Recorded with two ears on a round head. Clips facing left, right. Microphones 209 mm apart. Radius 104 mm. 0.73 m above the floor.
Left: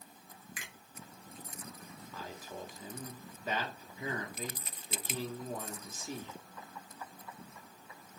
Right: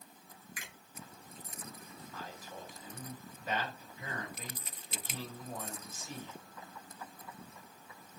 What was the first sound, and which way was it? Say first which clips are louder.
A finger snap: right 1 dB; 70° left (ahead or behind).